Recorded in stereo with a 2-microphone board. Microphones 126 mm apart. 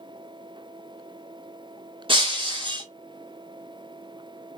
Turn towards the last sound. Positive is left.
turn(degrees=-50)  # may be behind; listen again after turning